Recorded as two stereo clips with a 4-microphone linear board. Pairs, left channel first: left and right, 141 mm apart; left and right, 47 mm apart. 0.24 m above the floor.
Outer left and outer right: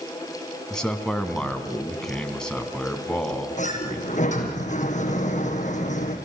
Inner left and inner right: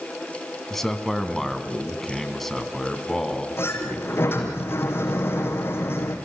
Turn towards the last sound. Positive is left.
turn(degrees=55)  # may be behind; listen again after turning